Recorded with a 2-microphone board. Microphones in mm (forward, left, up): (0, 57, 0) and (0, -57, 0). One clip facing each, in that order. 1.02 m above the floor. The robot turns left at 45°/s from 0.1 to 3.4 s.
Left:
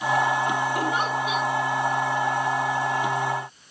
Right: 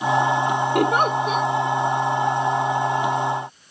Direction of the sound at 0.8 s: 110° right.